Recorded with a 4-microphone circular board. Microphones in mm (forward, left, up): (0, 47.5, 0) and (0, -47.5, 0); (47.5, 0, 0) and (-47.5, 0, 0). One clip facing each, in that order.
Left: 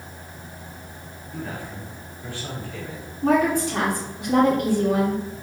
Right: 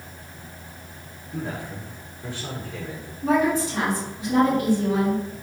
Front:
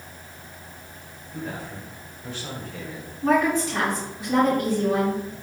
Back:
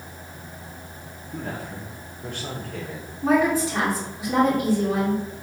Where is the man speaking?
160° right, 1.9 m.